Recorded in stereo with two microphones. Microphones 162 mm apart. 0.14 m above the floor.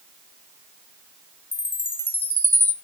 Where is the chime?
15° left (ahead or behind), 1.1 m.